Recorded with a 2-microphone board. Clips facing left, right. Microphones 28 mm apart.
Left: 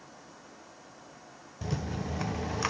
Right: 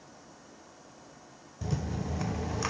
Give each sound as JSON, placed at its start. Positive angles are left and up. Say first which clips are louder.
{"t": 1.6, "sound": "a rattle", "louder": "even", "side_deg": 15, "distance_m": 0.6}